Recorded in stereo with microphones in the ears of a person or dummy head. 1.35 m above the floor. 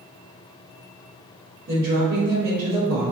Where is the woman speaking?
55° right (ahead or behind), 1.8 m.